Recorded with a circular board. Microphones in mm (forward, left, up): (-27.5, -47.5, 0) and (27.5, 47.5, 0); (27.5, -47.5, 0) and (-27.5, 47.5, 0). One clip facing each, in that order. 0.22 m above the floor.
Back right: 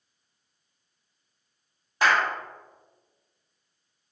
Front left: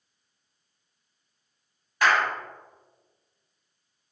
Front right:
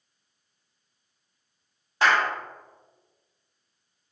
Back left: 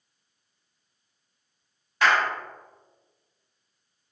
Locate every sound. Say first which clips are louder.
2.0 s a clap: even, even; 85° right, 1.0 m